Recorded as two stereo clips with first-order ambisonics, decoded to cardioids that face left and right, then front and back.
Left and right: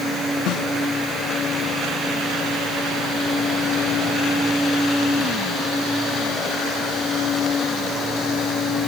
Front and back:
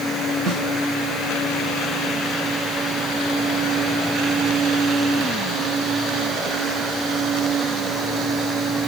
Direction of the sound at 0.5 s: 120° left.